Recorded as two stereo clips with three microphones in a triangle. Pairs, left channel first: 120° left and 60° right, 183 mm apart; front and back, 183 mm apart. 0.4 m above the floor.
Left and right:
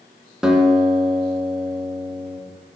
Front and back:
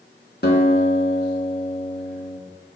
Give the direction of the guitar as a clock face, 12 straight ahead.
11 o'clock.